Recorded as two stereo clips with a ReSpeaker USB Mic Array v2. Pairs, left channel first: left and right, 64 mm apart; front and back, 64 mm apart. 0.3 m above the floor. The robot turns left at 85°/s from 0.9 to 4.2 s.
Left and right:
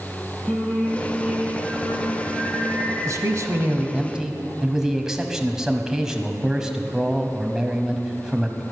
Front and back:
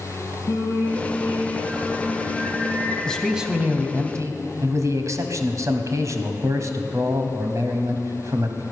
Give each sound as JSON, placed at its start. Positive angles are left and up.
{"t": 0.5, "sound": "singing", "azimuth_deg": 10, "distance_m": 5.0}
{"t": 3.0, "sound": "a man speaking", "azimuth_deg": -75, "distance_m": 1.5}